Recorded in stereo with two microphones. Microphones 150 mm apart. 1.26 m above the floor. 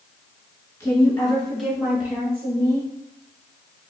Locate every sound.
0.8 s a woman speaking: 15° left (ahead or behind), 2.0 m; by 2.9 s 25° right (ahead or behind), 1.9 m